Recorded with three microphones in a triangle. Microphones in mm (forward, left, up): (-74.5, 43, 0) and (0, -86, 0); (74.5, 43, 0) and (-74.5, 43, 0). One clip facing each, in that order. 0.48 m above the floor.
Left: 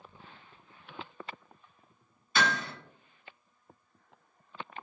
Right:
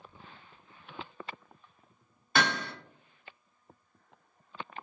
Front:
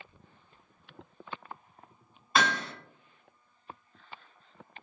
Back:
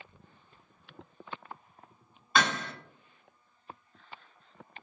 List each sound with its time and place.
2.4 s hammering: 90° right, 1.4 m